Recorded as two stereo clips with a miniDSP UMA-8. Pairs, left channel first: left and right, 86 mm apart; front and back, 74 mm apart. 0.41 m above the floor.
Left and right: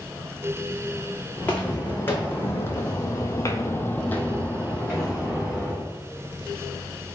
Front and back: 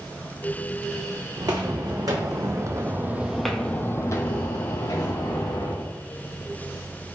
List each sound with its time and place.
1.4 s footsteps: 160° left, 1.4 m; by 5.9 s straight ahead, 1.5 m